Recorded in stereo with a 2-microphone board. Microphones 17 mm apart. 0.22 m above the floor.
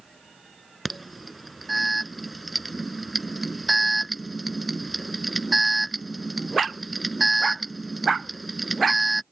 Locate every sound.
0.8 s an alarm: 5° right (ahead or behind)